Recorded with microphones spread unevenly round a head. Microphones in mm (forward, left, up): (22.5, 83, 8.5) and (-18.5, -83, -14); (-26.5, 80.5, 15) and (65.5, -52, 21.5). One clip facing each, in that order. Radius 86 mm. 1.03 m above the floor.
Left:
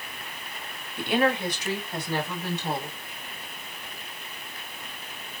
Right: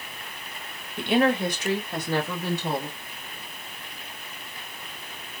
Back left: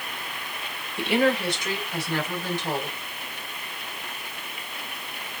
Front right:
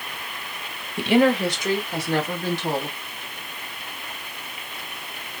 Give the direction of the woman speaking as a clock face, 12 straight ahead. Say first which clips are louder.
Right 3 dB, front right 4 dB; 1 o'clock.